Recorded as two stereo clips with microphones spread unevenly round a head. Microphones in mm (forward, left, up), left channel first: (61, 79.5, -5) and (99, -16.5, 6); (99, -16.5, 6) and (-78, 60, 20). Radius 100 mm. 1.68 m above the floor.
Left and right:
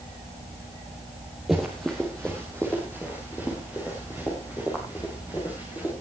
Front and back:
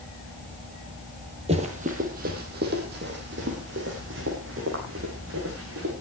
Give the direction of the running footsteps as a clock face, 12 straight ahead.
5 o'clock.